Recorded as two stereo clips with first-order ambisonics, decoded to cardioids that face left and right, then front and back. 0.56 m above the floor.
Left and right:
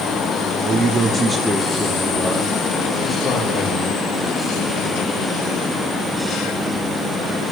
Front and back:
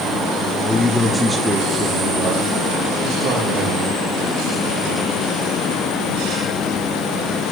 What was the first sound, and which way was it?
A man speaking, 80° right.